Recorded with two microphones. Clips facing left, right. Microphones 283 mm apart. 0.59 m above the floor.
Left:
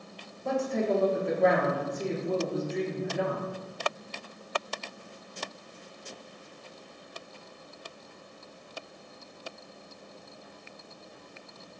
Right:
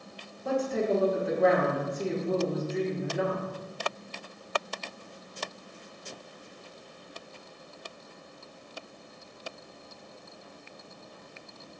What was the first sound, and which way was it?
A woman speaking, 5° right (ahead or behind).